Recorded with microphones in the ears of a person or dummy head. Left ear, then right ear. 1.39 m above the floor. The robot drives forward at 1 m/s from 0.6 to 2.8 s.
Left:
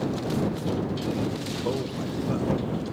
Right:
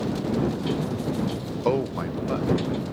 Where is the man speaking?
65° right (ahead or behind), 0.5 m; by 2.8 s 20° right (ahead or behind), 1.4 m.